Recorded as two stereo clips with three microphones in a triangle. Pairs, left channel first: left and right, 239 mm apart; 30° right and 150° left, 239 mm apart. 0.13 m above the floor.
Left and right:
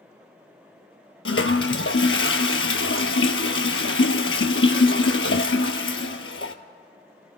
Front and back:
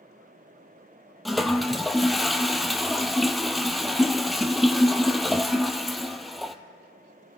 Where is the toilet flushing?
60° left, 0.7 m.